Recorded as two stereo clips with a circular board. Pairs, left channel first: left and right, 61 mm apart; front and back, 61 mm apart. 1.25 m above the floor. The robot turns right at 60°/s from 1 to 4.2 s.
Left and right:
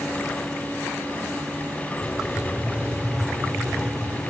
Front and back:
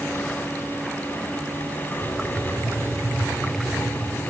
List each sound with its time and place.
2.0 s writing: 175° left, 1.4 m; by 4.2 s 55° right, 1.4 m